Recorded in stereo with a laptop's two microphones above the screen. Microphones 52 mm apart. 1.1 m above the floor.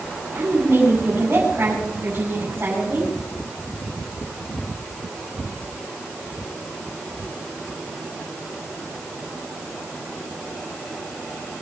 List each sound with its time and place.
0.3 s a woman speaking: 35° right (ahead or behind), 6 m